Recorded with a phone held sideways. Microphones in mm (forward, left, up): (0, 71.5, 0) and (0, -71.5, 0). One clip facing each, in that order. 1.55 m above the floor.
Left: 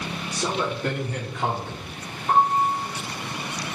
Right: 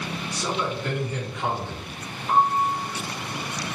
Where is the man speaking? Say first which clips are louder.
Left 2 dB; 60° left (ahead or behind), 2.5 m; by 1.9 s 45° left (ahead or behind), 3.5 m.